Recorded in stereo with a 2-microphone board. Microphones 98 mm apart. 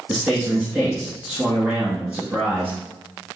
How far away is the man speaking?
About 1.8 m.